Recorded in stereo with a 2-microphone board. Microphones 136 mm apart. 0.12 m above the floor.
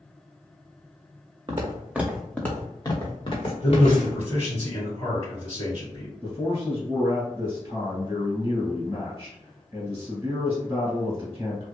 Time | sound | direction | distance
1.5 | footsteps | 35° right (ahead or behind) | 0.7 m
3.6 | a man speaking | 30° left (ahead or behind) | 1.9 m
6.2 | a man speaking | 20° right (ahead or behind) | 1.5 m